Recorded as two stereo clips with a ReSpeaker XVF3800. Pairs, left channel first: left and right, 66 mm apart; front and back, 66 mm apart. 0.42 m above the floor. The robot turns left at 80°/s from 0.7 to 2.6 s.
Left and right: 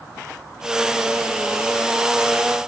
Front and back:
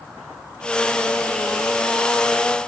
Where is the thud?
I don't hear a thud.